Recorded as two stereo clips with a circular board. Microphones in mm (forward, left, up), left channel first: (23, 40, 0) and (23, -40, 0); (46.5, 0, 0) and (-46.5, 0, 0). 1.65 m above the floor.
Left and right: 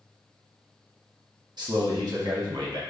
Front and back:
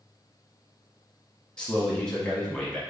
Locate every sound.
1.6 s a man speaking: 80° right, 1.1 m